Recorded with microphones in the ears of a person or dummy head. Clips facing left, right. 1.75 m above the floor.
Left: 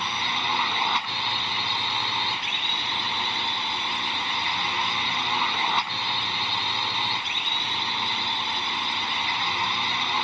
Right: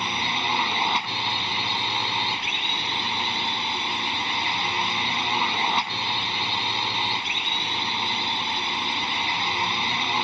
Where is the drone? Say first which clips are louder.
Right 2 dB; 20° right (ahead or behind).